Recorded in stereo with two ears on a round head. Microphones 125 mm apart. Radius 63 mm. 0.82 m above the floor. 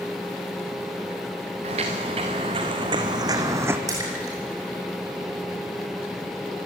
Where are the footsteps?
45° right (ahead or behind), 4.5 m; by 3.8 s 15° right (ahead or behind), 2 m.